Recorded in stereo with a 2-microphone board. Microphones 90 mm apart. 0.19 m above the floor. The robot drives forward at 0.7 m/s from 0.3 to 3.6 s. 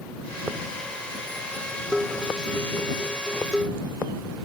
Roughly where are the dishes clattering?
Centre.